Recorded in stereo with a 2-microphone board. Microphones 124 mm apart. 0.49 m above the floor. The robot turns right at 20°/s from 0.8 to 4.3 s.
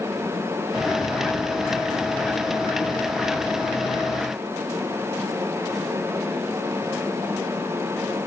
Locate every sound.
Only background noise.